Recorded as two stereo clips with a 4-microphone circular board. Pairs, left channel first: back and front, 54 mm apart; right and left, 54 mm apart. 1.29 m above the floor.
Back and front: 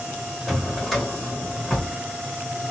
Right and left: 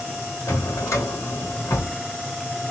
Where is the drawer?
90° right, 2 m.